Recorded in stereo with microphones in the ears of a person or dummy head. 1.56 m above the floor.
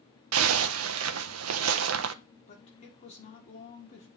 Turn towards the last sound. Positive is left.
turn(degrees=35)  # may be behind; listen again after turning